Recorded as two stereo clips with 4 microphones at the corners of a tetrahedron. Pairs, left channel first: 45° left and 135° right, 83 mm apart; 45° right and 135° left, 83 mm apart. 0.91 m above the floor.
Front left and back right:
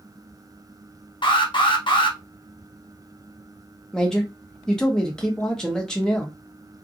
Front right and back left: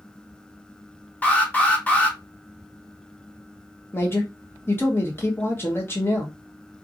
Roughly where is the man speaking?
Ahead right.